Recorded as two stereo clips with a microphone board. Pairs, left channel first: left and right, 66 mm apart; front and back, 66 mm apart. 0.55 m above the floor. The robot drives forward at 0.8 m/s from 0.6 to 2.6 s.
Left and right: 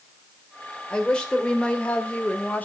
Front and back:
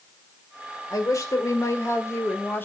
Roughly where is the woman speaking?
Ahead.